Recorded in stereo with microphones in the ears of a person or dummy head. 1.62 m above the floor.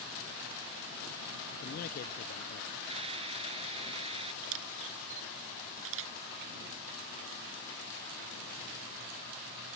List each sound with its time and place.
1.5 s a man speaking: 45° left (ahead or behind)
2.9 s a hiss: 35° right (ahead or behind)
4.4 s a camera shutter: 70° right (ahead or behind)